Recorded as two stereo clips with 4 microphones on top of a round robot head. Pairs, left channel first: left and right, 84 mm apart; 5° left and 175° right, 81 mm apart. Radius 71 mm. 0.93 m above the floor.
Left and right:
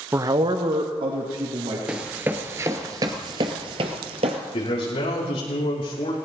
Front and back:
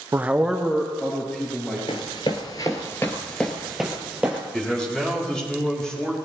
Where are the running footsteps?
15° right, 1.1 m; by 4.4 s 95° right, 1.5 m.